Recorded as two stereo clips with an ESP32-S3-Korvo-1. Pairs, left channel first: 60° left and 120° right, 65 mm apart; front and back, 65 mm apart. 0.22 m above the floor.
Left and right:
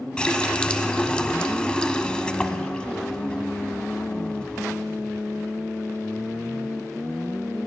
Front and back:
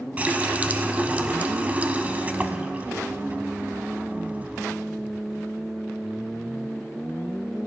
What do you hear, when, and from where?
0.2 s a running tap: 130° left, 0.8 m